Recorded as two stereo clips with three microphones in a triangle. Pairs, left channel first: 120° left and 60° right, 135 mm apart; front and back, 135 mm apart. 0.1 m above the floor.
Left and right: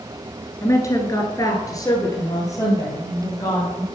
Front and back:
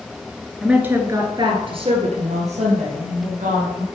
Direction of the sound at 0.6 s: 100° left.